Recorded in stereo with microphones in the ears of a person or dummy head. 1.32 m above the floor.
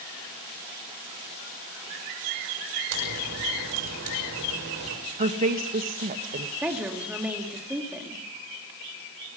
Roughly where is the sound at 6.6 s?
Centre.